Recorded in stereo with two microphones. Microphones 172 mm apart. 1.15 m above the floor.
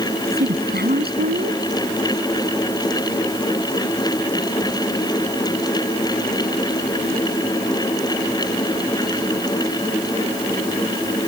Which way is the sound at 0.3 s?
70° right (ahead or behind).